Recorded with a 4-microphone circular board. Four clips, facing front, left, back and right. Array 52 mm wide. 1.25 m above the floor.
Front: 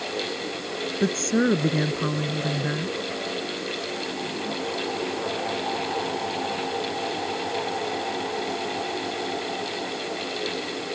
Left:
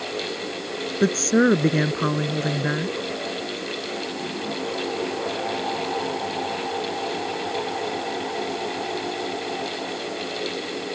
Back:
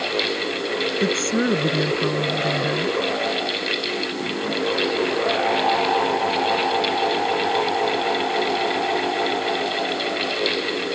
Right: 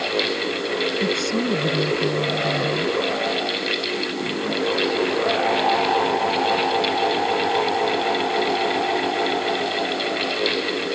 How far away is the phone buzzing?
No phone buzzing in this recording.